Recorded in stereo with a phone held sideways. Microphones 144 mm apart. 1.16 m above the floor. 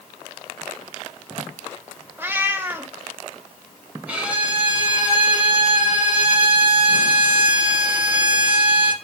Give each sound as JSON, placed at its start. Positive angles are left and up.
{"t": 2.2, "sound": "a cat meowing", "side_deg": -15, "distance_m": 0.8}
{"t": 4.1, "sound": "a violin", "side_deg": -10, "distance_m": 2.0}